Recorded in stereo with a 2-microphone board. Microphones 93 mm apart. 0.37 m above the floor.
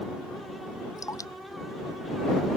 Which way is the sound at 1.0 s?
35° left (ahead or behind).